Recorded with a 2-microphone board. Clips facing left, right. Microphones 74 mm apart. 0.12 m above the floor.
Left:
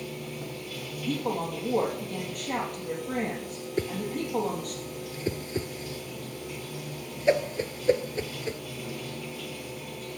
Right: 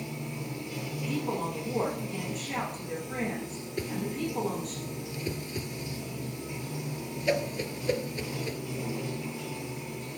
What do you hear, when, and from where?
0.0 s running water: 20° right (ahead or behind), 0.9 m
1.1 s a woman speaking: 60° left (ahead or behind), 3.5 m
3.8 s a whoosh: 30° left (ahead or behind), 0.6 m